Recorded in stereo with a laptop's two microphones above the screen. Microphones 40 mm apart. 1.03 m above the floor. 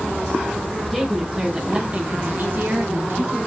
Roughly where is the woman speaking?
Centre.